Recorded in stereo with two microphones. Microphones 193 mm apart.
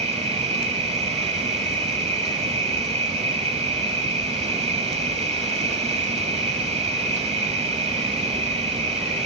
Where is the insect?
35° right (ahead or behind), 1.4 m.